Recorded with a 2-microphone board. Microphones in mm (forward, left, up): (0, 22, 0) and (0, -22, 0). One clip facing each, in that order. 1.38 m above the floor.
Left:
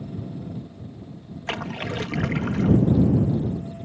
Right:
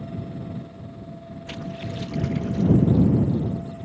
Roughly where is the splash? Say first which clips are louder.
Left 5 dB; left.